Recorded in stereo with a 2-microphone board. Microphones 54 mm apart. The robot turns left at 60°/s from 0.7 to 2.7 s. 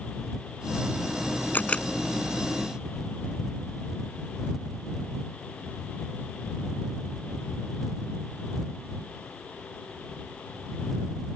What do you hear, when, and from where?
1.5 s a camera shutter: 30° left (ahead or behind); by 1.8 s 15° left (ahead or behind)